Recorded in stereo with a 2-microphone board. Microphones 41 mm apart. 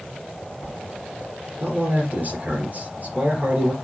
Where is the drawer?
No drawer in this recording.